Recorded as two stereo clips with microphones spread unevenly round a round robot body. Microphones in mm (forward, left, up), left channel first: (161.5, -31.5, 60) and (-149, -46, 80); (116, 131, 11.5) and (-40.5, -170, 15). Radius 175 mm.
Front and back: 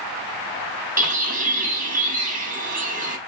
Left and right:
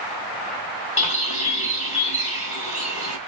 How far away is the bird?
About 1.5 m.